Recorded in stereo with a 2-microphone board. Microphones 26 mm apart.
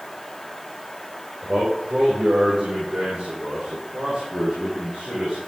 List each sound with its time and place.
1.4 s a man speaking: 65° right (ahead or behind), 4.5 m; by 5.4 s 40° right (ahead or behind), 7.5 m